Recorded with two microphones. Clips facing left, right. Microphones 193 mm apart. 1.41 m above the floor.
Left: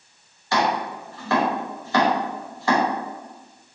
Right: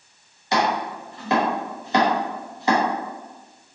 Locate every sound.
0.5 s chopping: 20° right (ahead or behind), 0.8 m